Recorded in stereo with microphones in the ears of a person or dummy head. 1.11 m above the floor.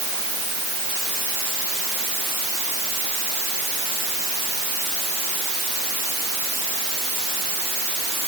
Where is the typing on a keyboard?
No typing on a keyboard in this recording.